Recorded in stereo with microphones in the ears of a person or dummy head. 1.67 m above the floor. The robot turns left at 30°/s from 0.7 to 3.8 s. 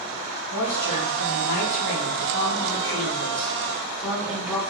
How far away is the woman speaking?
About 4 m.